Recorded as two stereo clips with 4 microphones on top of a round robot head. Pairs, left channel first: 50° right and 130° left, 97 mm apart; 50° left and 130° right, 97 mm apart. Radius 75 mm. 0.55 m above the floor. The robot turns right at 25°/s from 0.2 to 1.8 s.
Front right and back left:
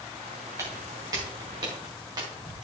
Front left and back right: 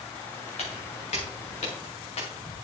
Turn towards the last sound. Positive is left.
turn(degrees=70)